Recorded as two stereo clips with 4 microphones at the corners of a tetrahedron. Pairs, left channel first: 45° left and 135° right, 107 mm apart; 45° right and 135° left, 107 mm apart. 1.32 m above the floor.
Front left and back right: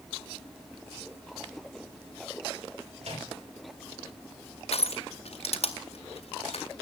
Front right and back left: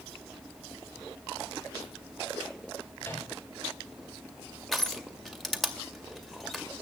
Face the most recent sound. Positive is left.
turn(degrees=45)